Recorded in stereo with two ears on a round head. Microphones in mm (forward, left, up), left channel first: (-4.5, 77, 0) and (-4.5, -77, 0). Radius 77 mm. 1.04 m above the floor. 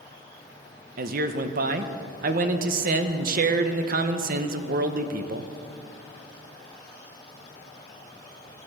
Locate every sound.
1.0 s a man speaking: 50° right (ahead or behind), 0.9 m